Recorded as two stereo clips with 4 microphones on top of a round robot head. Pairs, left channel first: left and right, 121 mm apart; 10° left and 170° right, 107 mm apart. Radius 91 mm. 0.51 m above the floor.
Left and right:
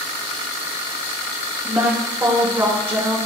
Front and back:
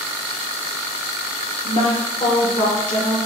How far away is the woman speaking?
About 1.2 m.